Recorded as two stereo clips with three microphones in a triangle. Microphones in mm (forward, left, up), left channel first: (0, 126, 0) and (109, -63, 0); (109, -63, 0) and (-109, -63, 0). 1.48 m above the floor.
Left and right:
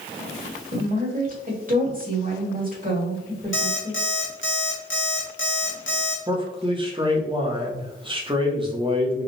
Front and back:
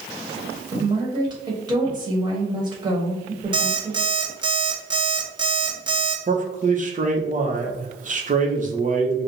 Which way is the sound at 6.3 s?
125° right.